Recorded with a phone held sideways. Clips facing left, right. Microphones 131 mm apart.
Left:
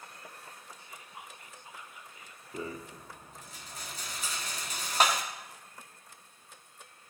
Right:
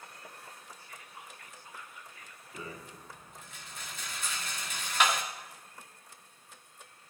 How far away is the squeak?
About 1.5 m.